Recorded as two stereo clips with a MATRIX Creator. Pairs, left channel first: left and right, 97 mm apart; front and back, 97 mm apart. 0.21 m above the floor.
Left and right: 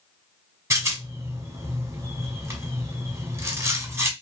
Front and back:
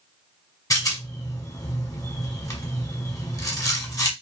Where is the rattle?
40° right, 0.9 m.